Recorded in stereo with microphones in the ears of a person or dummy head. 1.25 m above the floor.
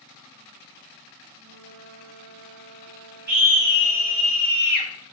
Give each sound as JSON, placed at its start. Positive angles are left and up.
{"t": 1.4, "sound": "a flute", "side_deg": -70, "distance_m": 3.5}
{"t": 3.3, "sound": "a scream", "side_deg": -45, "distance_m": 3.0}